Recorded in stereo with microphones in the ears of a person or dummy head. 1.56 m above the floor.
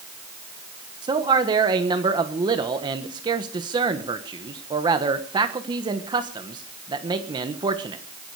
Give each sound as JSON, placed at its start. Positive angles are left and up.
{"t": 1.0, "sound": "a man speaking", "side_deg": -20, "distance_m": 1.4}